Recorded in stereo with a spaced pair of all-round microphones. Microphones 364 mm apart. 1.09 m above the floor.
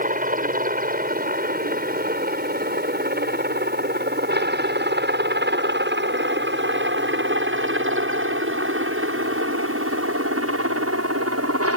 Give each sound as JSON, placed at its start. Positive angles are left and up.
{"t": 0.0, "sound": "a helicopter", "side_deg": -20}